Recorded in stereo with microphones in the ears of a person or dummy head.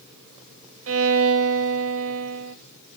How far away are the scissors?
No scissors in this recording.